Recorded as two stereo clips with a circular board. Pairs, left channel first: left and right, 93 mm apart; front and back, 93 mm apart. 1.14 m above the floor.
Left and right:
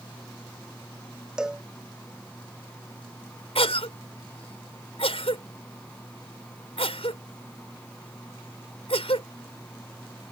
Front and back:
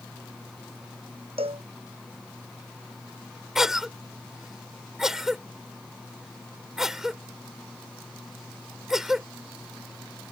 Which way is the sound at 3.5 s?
95° left.